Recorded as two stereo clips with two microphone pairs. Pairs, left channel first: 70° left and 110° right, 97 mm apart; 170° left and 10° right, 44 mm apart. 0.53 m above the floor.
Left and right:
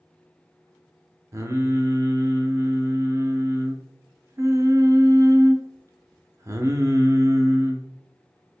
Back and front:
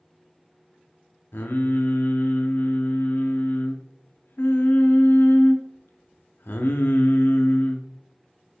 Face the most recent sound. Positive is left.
turn(degrees=-165)